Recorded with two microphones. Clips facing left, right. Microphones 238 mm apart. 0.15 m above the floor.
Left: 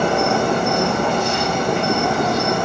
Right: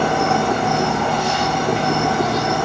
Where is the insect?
45° left (ahead or behind), 3 m.